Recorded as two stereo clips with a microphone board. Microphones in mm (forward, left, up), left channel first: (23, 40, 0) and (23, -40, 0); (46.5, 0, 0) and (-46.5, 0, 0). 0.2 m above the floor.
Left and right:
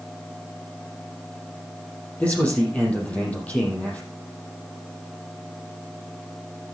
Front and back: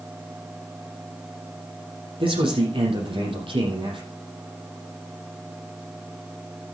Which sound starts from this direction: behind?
A man speaking, at 2.2 s.